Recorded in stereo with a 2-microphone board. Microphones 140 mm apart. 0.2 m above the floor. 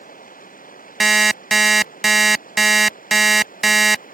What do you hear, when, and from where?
0.0 s running water: 80° left
1.0 s an alarm clock: centre (ahead or behind)